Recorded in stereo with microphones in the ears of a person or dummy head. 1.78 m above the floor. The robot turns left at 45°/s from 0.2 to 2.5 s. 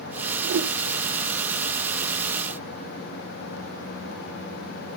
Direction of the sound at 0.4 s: 75° right (ahead or behind).